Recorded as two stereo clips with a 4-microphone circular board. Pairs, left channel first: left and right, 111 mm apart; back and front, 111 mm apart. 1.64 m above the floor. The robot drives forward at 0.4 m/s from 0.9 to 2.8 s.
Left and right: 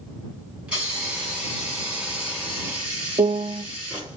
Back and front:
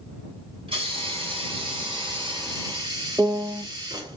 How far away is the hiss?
About 2 m.